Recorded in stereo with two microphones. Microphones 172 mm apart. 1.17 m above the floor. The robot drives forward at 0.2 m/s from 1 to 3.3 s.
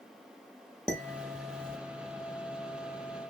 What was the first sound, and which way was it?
Dishes clattering, 5° left (ahead or behind).